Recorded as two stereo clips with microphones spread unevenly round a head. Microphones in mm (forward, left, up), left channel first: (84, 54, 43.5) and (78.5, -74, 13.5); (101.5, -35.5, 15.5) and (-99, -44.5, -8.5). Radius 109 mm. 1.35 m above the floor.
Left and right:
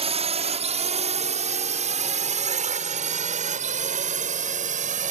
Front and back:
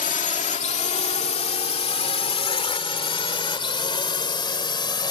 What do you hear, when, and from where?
0.0 s a drone: 50° right; by 5.1 s 65° right